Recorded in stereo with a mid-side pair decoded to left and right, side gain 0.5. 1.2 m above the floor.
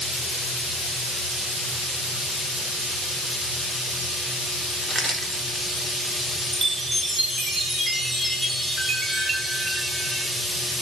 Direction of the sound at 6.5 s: 30° right.